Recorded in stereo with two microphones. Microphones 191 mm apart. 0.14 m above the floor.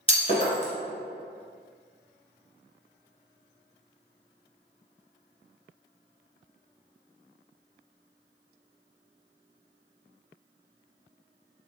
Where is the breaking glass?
30° left (ahead or behind), 1.2 m.